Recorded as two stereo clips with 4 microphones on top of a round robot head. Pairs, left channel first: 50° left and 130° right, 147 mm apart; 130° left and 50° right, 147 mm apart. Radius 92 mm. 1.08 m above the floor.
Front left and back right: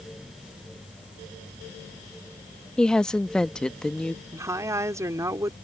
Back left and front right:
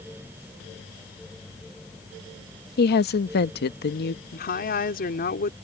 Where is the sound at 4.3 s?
155° left.